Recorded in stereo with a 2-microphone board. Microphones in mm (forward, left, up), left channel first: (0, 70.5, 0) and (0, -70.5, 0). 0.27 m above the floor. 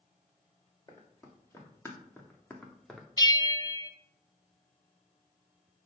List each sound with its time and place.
0.9 s running footsteps: 25° left (ahead or behind), 2.5 m; by 3.1 s centre (ahead or behind), 1.5 m
3.2 s a bell: 30° left (ahead or behind), 0.6 m